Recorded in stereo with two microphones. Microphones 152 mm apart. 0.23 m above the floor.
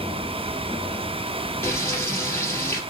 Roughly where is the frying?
Centre.